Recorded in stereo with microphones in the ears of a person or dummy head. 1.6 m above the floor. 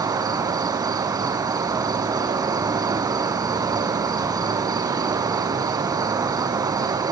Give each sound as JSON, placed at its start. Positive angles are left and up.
{"t": 0.0, "sound": "an insect", "side_deg": -20, "distance_m": 0.7}